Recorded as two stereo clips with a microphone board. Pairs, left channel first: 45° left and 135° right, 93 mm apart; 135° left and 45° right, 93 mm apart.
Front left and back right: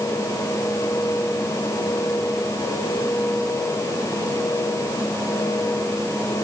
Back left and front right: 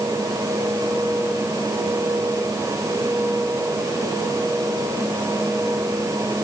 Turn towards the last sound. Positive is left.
No sound to turn to.